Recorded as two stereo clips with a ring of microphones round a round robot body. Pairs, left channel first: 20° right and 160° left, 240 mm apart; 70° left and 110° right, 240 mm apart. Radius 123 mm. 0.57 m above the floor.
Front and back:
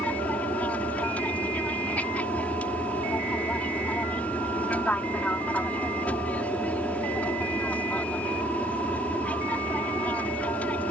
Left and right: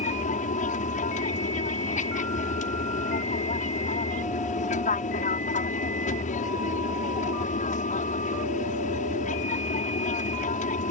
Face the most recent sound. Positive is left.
turn(degrees=55)